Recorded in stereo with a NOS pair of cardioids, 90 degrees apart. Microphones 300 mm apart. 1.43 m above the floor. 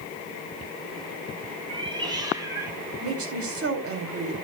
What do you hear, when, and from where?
1.7 s a cat meowing: 20° right, 5.5 m; by 2.8 s 10° right, 6.5 m
3.0 s a woman speaking: 50° right, 3.5 m